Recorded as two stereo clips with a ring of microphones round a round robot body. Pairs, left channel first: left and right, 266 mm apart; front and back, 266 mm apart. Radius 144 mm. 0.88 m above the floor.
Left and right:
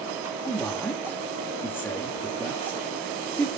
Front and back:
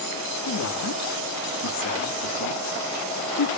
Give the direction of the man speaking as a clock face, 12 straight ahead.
12 o'clock.